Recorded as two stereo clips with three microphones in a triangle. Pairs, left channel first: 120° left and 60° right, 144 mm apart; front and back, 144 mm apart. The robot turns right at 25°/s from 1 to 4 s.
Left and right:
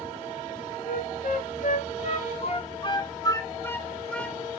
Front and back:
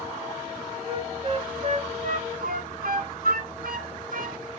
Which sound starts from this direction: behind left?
A flute, at 0.9 s.